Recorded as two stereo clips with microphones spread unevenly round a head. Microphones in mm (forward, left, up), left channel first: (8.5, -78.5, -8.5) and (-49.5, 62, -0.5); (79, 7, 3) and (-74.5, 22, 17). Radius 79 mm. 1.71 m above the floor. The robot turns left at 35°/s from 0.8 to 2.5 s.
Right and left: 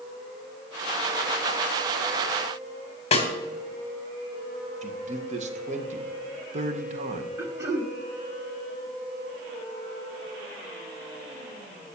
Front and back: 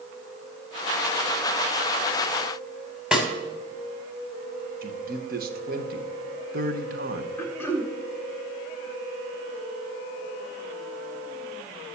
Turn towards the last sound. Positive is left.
turn(degrees=70)